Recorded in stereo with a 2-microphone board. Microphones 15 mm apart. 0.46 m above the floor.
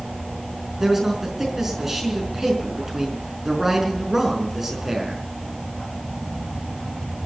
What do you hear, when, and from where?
0.8 s a man speaking: 15° right (ahead or behind), 5 m